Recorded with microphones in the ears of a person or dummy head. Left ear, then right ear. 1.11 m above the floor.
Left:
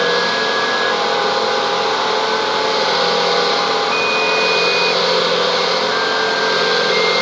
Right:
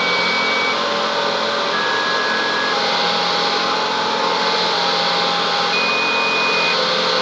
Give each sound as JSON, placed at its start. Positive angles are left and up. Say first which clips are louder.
{"t": 0.0, "sound": "a machine running", "louder": "left 1 dB", "side_deg": 70, "distance_m": 1.6}